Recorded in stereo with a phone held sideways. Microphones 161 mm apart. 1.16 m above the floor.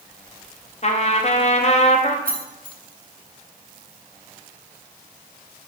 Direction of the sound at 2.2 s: 60° right (ahead or behind).